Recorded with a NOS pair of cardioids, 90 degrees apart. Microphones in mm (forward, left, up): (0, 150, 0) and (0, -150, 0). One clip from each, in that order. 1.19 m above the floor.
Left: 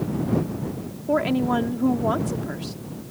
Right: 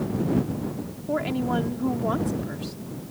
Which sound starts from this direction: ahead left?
A woman speaking, at 1.1 s.